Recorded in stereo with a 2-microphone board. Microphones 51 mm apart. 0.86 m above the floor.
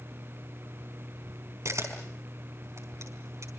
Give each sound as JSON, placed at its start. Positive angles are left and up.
{"t": 1.6, "sound": "a camera shutter", "side_deg": -70, "distance_m": 4.5}